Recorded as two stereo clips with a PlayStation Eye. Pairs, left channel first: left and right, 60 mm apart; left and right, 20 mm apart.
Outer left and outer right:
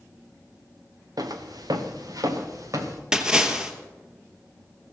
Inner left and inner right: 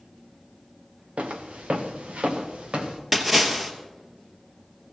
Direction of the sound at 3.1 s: 10° right (ahead or behind).